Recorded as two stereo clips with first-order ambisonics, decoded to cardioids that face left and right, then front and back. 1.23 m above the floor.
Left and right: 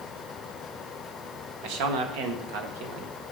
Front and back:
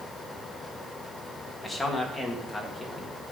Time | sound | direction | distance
1.6 | a man speaking | 85° right | 1.8 m